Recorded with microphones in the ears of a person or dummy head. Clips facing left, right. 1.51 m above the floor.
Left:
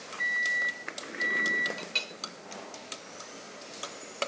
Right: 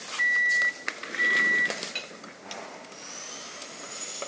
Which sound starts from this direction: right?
A microwave, at 0.2 s.